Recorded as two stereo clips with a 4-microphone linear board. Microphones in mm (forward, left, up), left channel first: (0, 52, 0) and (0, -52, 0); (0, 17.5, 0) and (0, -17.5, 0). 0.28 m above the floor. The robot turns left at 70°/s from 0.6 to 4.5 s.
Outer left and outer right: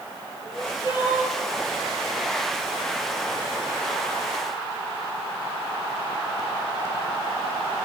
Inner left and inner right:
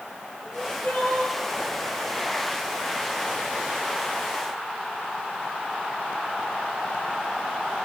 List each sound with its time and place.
0.4 s crying: 155° left, 2.5 m; by 1.4 s 100° left, 2.5 m